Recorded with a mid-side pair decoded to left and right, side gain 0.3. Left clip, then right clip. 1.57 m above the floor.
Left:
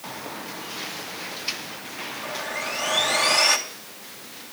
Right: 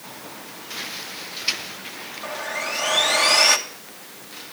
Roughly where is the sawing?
Ahead right.